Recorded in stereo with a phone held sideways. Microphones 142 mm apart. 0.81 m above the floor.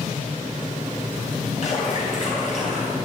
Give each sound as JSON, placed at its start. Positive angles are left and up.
{"t": 1.6, "sound": "a splash", "side_deg": 60, "distance_m": 4.5}